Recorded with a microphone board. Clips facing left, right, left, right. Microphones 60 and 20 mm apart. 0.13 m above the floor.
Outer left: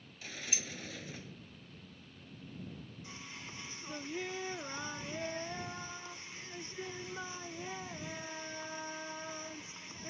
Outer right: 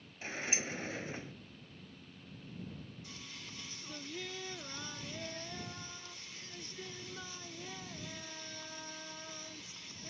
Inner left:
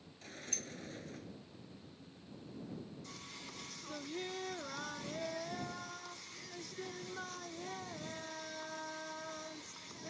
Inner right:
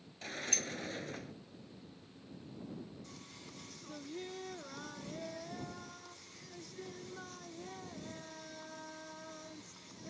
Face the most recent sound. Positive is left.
turn(degrees=25)  # may be behind; listen again after turning